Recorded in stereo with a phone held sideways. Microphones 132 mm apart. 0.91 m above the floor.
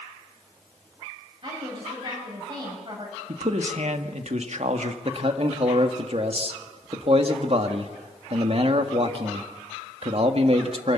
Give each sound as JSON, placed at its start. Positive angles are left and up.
{"t": 1.4, "sound": "a woman speaking", "side_deg": -40, "distance_m": 6.0}
{"t": 3.3, "sound": "a man speaking", "side_deg": -60, "distance_m": 1.6}
{"t": 5.0, "sound": "a man speaking", "side_deg": -50, "distance_m": 1.6}